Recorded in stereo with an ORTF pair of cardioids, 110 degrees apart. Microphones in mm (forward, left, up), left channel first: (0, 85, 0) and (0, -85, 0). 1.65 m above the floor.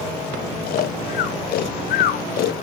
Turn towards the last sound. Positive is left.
turn(degrees=65)